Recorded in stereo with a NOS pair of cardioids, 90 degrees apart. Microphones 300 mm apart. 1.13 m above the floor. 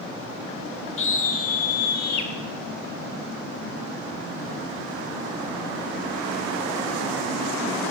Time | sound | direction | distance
1.0 | a scream | 45° left | 2 m